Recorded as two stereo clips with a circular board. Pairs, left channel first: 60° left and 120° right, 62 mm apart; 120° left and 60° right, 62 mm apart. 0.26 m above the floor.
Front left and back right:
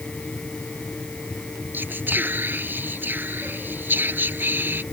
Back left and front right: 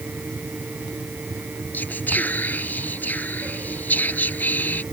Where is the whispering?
175° right.